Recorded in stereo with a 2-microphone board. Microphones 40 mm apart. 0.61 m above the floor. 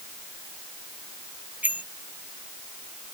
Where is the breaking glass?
I don't hear breaking glass.